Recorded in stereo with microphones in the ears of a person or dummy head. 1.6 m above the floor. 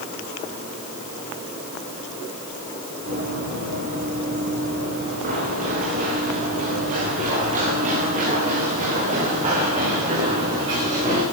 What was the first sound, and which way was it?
Running footsteps, 50° right (ahead or behind).